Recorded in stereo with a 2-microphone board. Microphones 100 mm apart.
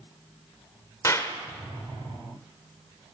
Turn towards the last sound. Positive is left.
turn(degrees=30)  # may be behind; listen again after turning